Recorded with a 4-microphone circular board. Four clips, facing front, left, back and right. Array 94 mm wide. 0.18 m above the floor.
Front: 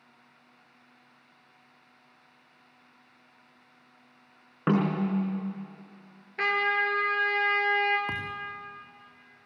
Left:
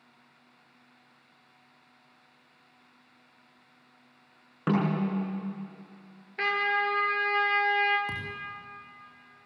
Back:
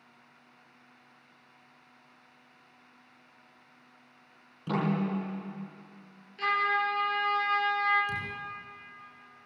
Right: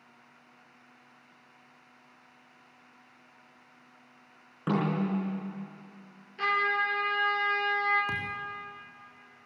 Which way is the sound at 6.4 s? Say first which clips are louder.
Even, front 1 dB; 35° left.